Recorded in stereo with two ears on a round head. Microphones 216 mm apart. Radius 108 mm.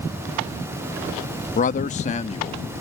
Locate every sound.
1.6 s a man speaking: 30° left (ahead or behind); by 2.6 s 25° left (ahead or behind)